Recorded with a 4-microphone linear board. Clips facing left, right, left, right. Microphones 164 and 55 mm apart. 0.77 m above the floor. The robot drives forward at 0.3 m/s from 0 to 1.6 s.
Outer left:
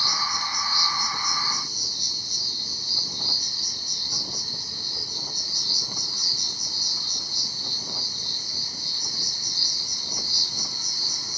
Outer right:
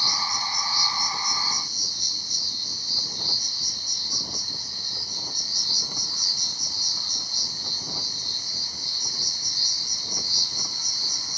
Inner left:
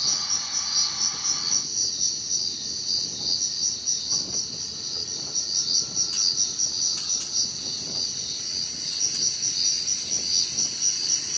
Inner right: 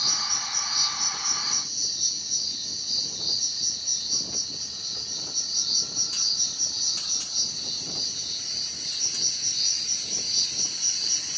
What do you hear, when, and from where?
0.0 s an insect: 65° left (ahead or behind), 2.5 m